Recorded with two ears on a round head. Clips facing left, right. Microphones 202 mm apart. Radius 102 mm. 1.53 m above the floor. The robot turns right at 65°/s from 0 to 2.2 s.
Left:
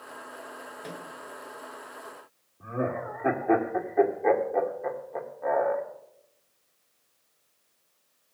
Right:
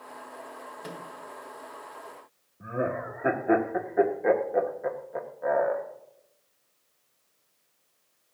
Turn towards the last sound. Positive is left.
turn(degrees=-10)  # may be behind; listen again after turning